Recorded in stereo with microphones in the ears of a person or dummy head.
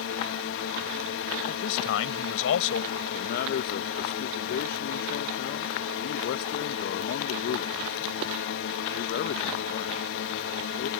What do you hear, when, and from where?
0.0 s a drone: 65° left (ahead or behind)
1.5 s a man speaking: 80° left
3.1 s a man speaking: 55° left (ahead or behind)